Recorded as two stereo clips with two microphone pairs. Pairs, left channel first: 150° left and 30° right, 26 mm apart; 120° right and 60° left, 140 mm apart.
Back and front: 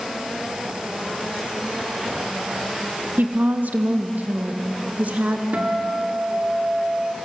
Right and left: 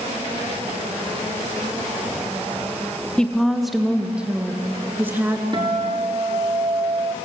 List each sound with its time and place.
3.2 s a woman speaking: 40° right, 1.6 m; by 5.4 s 15° right, 3 m
5.5 s a guitar: straight ahead, 3.5 m